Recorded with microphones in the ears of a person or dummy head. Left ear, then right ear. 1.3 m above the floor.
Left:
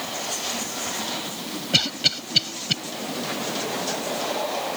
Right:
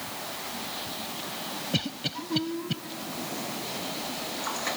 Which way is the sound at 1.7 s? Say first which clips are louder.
Left 12 dB; 60° left (ahead or behind).